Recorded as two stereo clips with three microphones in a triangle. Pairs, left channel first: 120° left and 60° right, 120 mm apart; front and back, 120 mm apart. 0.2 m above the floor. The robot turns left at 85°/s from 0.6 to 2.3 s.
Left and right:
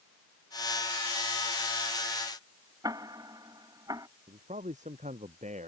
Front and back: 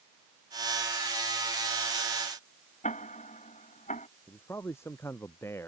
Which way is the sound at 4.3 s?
70° right.